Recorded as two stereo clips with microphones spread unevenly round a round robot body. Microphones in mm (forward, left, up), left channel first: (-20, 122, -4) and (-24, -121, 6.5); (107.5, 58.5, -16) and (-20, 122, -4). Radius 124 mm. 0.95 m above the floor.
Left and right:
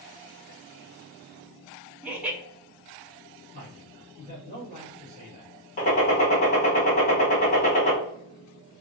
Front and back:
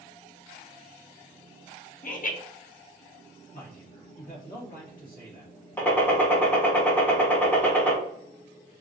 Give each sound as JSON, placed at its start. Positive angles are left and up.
{"t": 2.0, "sound": "laughter", "azimuth_deg": -5, "distance_m": 0.8}
{"t": 3.5, "sound": "a man speaking", "azimuth_deg": -30, "distance_m": 1.6}
{"t": 5.8, "sound": "a gunshot", "azimuth_deg": 40, "distance_m": 1.1}